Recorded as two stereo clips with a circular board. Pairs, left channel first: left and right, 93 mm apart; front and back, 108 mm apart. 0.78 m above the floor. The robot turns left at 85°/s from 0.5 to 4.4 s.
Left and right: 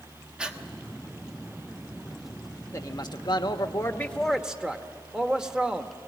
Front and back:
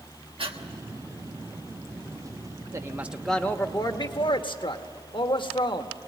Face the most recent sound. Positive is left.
turn(degrees=-10)